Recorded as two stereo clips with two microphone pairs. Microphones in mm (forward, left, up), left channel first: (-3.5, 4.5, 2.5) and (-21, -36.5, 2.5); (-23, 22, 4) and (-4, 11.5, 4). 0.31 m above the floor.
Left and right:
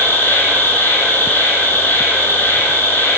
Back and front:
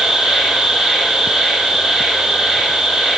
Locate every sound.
0.0 s an insect: 25° left, 8 m